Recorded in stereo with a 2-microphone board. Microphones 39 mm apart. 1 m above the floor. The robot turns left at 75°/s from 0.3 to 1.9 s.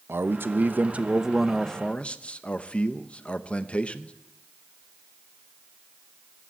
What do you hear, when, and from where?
0.1 s a man speaking: 95° right, 0.7 m; by 4.1 s 145° left, 0.7 m